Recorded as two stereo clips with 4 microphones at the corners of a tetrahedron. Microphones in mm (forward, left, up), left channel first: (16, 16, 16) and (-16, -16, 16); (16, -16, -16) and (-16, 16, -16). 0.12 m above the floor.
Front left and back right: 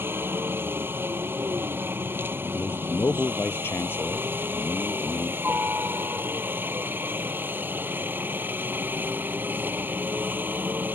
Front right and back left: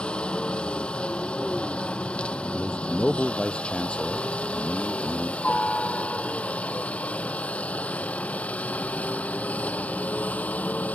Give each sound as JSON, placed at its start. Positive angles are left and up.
{"t": 0.0, "sound": "a helicopter", "azimuth_deg": -110}
{"t": 2.5, "sound": "a man speaking", "azimuth_deg": 20}